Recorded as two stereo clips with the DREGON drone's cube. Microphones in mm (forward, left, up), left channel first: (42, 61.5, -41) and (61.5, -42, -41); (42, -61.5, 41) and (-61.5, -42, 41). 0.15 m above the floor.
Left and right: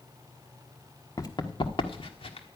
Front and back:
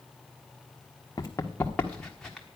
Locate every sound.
1.2 s running footsteps: 45° left, 1.1 m; by 2.5 s 80° left, 1.7 m